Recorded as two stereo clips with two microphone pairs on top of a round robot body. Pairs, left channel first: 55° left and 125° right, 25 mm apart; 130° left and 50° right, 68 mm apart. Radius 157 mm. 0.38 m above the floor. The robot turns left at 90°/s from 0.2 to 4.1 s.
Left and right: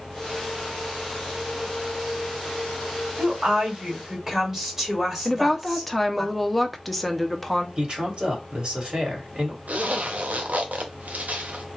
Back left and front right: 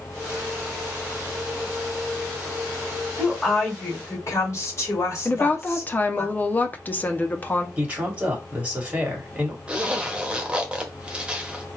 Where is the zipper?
125° right, 0.8 m.